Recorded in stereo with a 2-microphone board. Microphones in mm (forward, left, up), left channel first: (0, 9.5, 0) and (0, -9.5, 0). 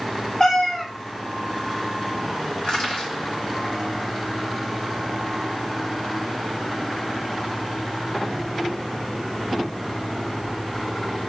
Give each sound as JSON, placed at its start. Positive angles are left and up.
{"t": 0.4, "sound": "a cat meowing", "side_deg": 30, "distance_m": 0.8}
{"t": 2.6, "sound": "crushing", "side_deg": 65, "distance_m": 1.7}